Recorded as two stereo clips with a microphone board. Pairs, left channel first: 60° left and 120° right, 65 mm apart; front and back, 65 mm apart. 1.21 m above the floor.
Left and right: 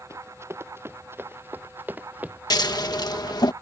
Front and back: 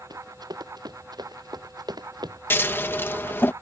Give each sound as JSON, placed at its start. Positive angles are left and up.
{"t": 0.1, "sound": "running footsteps", "azimuth_deg": -170}
{"t": 2.5, "sound": "scissors", "azimuth_deg": 55}